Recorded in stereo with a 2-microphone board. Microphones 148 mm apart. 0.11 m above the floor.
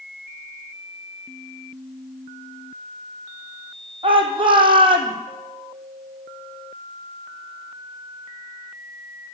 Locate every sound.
4.0 s a shout: 35° right (ahead or behind), 5 m